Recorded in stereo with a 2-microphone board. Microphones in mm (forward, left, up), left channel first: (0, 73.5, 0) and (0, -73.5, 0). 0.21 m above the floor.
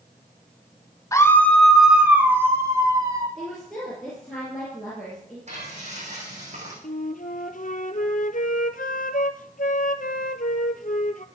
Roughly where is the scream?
Left.